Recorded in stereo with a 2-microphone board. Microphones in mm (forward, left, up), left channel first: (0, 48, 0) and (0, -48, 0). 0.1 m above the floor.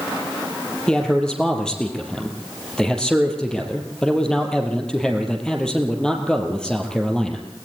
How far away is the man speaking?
About 2.5 m.